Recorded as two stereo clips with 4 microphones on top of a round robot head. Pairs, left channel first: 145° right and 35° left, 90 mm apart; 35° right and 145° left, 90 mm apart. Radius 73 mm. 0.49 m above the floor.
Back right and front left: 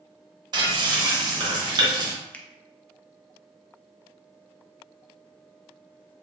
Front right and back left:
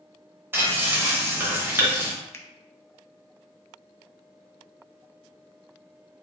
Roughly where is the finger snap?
Right.